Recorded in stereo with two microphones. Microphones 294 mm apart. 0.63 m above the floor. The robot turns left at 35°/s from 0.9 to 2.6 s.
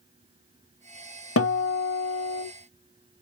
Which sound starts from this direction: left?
A guitar, at 1.4 s.